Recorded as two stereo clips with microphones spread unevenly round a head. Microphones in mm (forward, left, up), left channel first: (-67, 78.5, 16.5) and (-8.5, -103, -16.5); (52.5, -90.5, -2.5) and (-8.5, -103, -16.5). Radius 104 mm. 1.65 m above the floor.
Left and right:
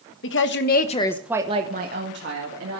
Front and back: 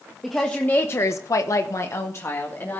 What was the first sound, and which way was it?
A woman speaking, 95° left.